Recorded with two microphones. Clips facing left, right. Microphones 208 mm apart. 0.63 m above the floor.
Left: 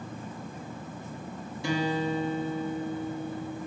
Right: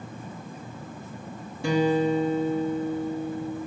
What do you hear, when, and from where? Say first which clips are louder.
1.6 s a guitar: right 6 dB; 60° right (ahead or behind), 1.1 m